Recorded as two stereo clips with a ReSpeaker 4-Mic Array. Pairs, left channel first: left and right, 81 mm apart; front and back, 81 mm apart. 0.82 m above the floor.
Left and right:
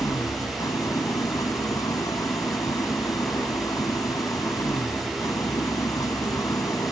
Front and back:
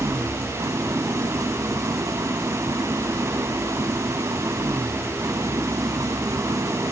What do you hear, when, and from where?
0.0 s an engine running: 135° left